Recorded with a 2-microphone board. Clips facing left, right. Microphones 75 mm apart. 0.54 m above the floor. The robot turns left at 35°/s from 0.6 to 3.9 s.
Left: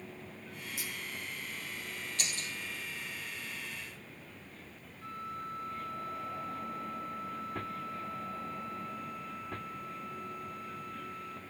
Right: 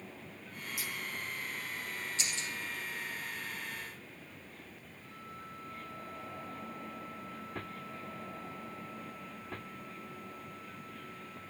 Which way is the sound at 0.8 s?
30° left (ahead or behind).